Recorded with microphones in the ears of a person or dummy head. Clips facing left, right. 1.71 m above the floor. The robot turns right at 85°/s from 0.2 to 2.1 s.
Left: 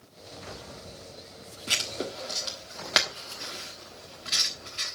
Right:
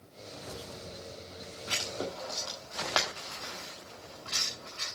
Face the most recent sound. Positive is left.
turn(degrees=20)  # may be behind; listen again after turning